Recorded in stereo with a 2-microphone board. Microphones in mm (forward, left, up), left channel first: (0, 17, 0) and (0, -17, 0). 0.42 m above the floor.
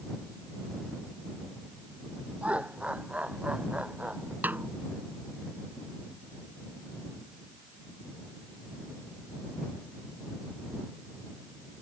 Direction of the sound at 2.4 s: 40° right (ahead or behind).